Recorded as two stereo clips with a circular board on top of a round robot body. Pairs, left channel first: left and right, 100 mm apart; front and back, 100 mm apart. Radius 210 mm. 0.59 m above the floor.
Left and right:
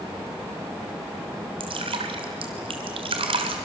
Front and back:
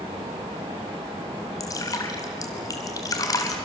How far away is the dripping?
About 1.0 m.